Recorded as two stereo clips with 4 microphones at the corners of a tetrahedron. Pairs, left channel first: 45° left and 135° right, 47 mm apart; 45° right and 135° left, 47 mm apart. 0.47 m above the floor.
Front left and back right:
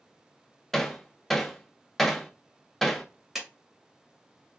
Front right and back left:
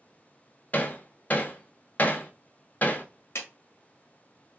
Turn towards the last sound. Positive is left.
turn(degrees=-45)